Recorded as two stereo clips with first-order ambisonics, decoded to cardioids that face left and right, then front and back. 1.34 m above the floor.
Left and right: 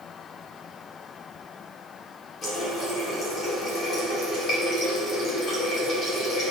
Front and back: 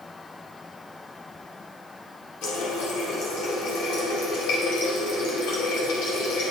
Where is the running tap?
30° left, 2 m.